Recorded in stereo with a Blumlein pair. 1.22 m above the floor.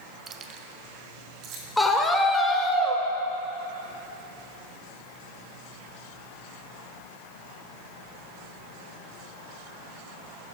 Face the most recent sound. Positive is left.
turn(degrees=5)